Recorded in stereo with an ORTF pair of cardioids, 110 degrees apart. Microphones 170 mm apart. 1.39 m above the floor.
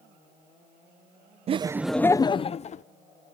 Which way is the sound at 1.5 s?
40° right.